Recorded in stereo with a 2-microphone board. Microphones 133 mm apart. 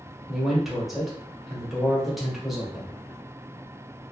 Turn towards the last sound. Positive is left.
turn(degrees=0)  # may be behind; listen again after turning